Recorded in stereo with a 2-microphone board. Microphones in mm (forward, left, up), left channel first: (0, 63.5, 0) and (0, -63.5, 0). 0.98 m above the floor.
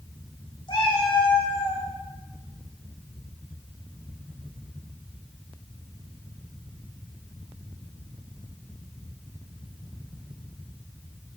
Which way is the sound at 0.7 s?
40° left (ahead or behind).